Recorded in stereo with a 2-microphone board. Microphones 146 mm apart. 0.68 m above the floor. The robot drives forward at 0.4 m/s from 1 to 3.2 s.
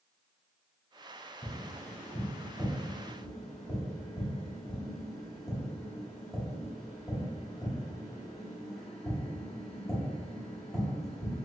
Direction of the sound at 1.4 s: Centre (ahead or behind).